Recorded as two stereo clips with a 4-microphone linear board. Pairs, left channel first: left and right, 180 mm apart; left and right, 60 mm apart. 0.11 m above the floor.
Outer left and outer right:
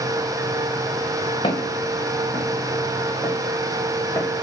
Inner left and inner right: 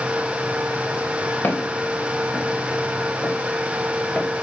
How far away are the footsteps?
About 4.5 m.